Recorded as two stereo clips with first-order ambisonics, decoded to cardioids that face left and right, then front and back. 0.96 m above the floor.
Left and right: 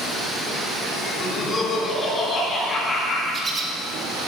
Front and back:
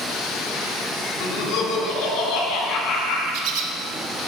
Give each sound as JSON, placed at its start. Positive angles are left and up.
{"t": 1.2, "sound": "laughter", "azimuth_deg": 20, "distance_m": 2.5}
{"t": 3.3, "sound": "a bird", "azimuth_deg": -170, "distance_m": 1.0}